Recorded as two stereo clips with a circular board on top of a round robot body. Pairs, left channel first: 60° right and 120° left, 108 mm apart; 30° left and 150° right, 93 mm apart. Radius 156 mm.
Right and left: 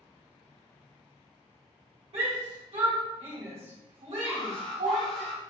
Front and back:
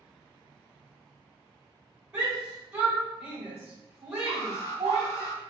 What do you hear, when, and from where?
2.1 s a shout: 140° left, 1.7 m
4.3 s an alarm: 25° right, 1.2 m